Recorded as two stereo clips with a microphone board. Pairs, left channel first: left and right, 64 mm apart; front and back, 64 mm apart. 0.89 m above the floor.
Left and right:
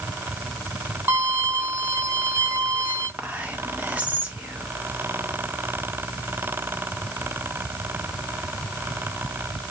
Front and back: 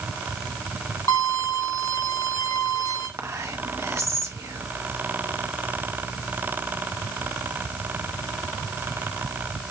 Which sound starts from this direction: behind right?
Whispering, at 3.2 s.